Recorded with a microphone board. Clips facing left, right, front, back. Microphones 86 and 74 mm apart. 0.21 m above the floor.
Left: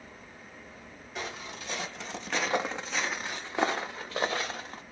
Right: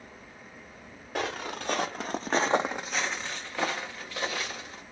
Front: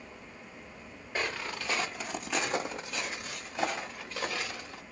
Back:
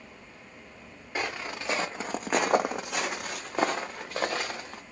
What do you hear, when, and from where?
1.1 s footsteps: 105° right, 0.9 m; by 4.8 s 135° left, 1.3 m